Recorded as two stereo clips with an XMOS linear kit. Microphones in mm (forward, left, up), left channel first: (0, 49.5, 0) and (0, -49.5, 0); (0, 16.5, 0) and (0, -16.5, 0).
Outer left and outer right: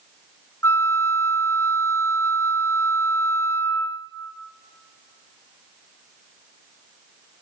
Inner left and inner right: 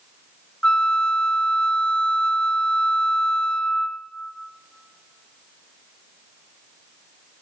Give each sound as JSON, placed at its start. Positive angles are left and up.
{"t": 0.6, "sound": "a flute", "side_deg": 25, "distance_m": 0.7}